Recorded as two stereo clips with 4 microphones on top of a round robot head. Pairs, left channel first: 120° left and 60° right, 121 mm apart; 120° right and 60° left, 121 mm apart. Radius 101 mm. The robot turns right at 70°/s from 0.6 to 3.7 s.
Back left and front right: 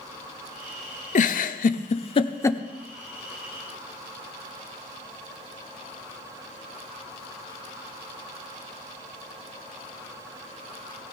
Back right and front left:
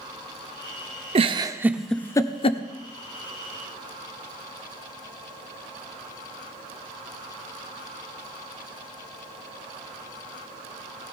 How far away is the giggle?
About 0.6 m.